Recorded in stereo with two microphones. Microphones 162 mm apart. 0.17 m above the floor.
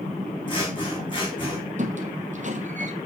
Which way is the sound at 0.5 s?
30° left (ahead or behind).